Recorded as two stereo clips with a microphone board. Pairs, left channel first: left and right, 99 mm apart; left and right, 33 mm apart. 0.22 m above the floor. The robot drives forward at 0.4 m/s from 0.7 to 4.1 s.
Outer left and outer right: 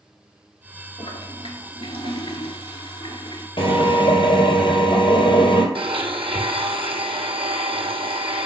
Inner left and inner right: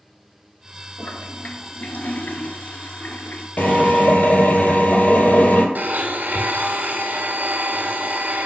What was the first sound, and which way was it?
A toilet flushing, 65° left (ahead or behind).